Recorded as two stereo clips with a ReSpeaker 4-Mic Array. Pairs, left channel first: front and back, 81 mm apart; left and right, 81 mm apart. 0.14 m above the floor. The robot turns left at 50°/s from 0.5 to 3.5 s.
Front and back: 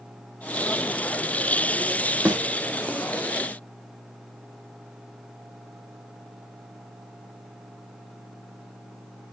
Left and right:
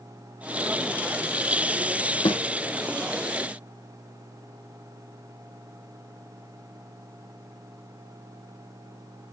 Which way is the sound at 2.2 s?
100° left.